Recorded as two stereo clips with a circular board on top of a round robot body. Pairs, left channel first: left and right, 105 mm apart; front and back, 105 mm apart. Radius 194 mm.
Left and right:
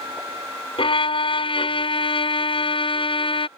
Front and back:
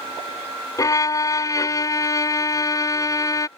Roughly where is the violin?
Ahead left.